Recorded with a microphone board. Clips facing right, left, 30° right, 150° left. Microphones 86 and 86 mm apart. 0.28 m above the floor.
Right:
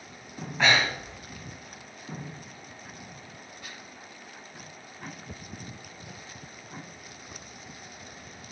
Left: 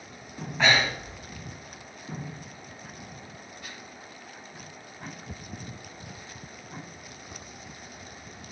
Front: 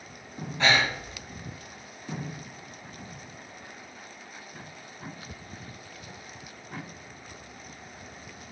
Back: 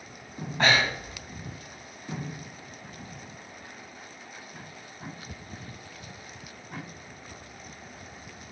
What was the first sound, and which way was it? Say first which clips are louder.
Breathing: even, back 1 dB; straight behind.